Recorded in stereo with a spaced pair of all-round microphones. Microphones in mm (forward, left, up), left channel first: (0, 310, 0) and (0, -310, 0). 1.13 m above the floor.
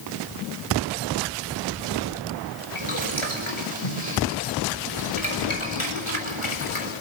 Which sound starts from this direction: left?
Boiling, at 2.8 s.